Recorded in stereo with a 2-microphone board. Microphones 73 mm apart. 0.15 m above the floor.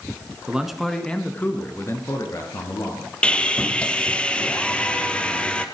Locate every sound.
0.5 s a man speaking: 10° right (ahead or behind), 1.8 m; by 3.1 s 60° left (ahead or behind), 3.5 m
3.2 s sawing: 15° left (ahead or behind), 1.2 m